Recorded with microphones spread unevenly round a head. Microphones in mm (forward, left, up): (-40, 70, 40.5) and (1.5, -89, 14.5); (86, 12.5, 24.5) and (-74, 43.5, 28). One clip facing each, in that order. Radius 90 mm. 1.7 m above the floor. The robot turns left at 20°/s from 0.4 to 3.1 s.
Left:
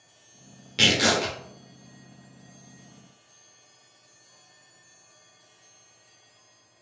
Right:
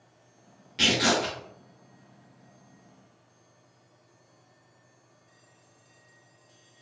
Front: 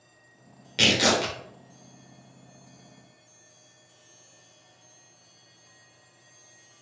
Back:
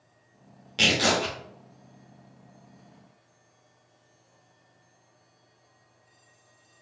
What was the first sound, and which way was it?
Tearing paper, 70° left.